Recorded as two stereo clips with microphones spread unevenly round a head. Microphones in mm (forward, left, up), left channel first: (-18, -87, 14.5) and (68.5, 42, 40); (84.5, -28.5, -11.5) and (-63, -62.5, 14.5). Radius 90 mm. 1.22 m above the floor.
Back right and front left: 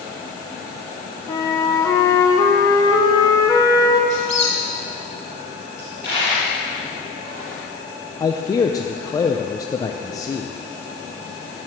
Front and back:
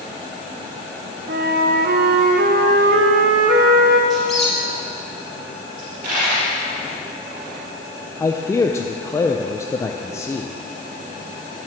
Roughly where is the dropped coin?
Behind left.